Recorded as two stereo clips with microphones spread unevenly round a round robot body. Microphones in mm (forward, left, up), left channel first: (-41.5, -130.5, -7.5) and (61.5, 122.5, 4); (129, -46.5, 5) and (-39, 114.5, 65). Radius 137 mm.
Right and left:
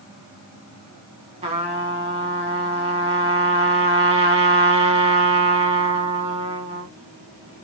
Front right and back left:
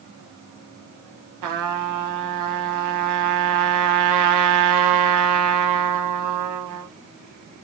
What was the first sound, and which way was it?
A trumpet, 140° left.